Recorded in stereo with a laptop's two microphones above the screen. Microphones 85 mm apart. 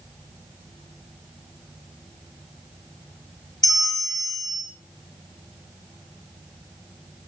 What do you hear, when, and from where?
3.6 s a bell: 45° left (ahead or behind), 0.8 m